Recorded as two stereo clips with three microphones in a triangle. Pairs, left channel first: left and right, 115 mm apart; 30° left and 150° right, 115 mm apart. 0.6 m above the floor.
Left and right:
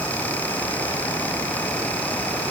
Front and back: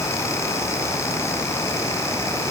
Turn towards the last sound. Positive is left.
No sound to turn to.